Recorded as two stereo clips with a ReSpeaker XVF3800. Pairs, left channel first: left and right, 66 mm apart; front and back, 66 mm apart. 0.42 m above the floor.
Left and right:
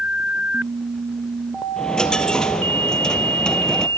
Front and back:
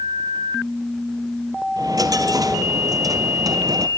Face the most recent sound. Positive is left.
turn(degrees=170)